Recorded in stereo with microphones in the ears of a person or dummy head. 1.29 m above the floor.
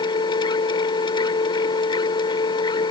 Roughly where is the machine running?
Left.